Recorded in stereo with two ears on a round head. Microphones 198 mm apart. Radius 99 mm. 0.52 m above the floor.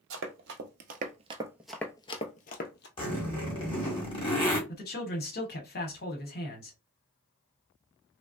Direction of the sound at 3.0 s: 25° left (ahead or behind).